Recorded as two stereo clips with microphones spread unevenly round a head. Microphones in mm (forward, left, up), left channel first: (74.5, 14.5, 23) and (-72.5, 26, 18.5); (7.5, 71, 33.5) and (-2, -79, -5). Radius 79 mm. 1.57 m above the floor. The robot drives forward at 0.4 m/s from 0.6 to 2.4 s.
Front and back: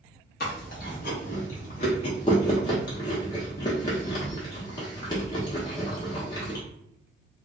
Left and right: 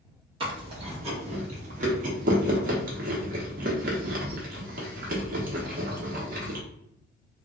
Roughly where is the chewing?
Ahead right.